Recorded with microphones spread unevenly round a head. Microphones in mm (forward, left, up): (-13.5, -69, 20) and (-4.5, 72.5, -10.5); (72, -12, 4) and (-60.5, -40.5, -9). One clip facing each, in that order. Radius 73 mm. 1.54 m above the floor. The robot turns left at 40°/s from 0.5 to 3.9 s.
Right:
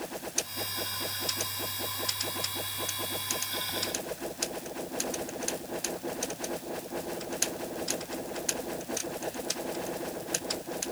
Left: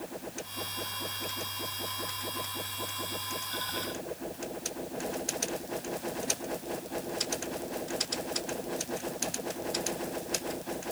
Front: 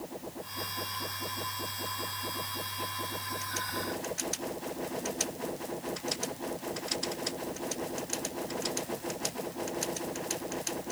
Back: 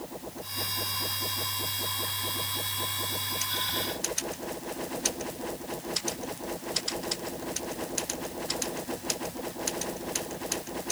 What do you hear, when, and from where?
Only background noise.